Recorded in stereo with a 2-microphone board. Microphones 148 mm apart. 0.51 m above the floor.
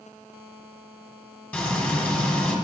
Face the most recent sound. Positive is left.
turn(degrees=10)  # may be behind; listen again after turning